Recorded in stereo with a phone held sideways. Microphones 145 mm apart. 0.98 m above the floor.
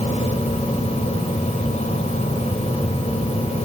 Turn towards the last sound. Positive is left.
turn(degrees=50)  # may be behind; listen again after turning